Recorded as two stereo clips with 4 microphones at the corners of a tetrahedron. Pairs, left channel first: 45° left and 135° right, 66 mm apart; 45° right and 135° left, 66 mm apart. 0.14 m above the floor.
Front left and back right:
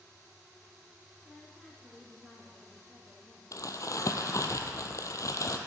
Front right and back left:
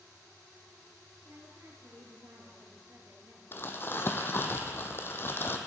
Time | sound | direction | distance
1.2 | a woman speaking | 130° left | 1.8 m
3.5 | crumpling | 10° left | 0.8 m